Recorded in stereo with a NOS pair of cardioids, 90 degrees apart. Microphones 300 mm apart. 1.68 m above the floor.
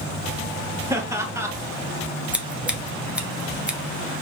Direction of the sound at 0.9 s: 10° right.